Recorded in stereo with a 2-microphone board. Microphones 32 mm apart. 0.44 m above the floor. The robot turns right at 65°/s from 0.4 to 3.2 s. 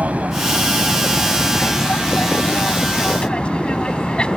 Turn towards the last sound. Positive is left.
turn(degrees=30)  # may be behind; listen again after turning